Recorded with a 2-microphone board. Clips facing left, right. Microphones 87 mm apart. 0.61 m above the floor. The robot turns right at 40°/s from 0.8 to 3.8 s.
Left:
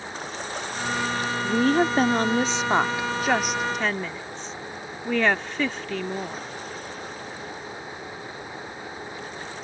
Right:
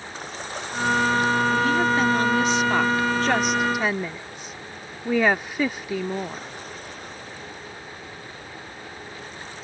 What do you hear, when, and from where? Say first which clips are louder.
1.4 s a woman speaking: even; 100° left; by 6.5 s 165° right